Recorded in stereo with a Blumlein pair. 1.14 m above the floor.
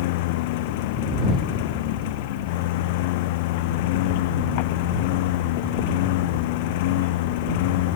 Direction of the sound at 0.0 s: 50° left.